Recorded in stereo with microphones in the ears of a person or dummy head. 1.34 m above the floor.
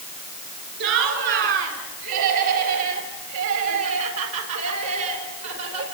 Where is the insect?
No insect in this recording.